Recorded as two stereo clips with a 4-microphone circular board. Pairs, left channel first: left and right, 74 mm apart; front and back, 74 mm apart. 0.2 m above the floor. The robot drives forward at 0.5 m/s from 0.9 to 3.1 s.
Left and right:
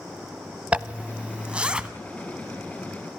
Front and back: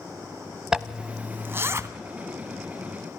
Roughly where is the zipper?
Behind right.